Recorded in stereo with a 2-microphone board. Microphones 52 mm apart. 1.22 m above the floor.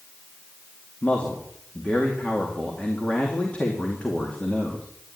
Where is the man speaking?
25° left (ahead or behind), 2.5 m.